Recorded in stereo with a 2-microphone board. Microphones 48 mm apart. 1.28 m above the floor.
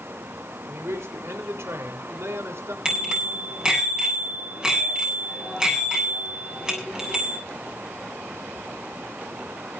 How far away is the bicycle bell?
About 7.5 m.